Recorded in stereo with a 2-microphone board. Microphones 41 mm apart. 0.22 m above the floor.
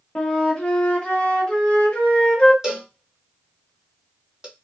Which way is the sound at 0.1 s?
25° left (ahead or behind).